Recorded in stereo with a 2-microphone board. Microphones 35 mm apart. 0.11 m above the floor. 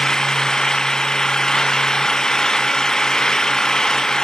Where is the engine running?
20° left (ahead or behind).